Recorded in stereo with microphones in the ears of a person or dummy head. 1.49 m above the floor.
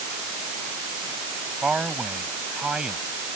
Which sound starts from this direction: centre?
A man speaking, at 1.6 s.